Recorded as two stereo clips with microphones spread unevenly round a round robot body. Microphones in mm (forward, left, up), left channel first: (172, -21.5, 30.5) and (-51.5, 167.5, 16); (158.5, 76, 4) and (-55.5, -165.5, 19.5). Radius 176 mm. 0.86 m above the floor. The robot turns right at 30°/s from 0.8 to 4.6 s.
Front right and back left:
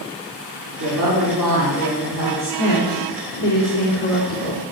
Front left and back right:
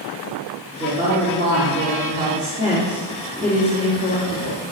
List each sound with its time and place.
0.8 s a woman speaking: 145° left, 3.5 m; by 2.5 s 165° right, 3.5 m
2.6 s a woman speaking: 60° right, 2.5 m; by 4.6 s straight ahead, 2.5 m